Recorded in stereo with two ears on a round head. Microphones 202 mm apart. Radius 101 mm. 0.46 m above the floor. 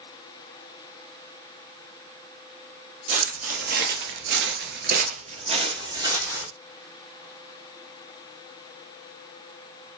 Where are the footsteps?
35° right (ahead or behind), 0.9 m; by 6.5 s 10° right (ahead or behind), 1.1 m.